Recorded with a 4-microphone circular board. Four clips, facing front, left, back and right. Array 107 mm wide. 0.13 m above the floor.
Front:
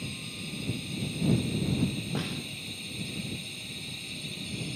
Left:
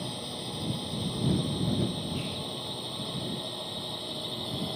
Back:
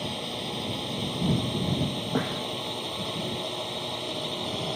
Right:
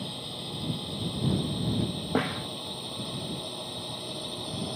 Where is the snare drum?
120° right.